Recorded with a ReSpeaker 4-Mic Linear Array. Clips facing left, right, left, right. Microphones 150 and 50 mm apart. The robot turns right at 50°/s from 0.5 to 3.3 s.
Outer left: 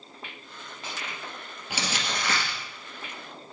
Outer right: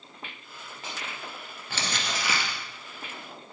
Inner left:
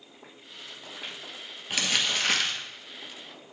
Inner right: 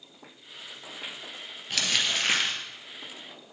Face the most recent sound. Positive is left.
turn(degrees=-120)